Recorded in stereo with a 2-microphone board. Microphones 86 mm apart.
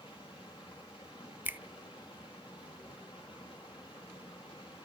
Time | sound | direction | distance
0.0 | running water | 85° left | 7 m
1.4 | a finger snap | 25° right (ahead or behind) | 0.5 m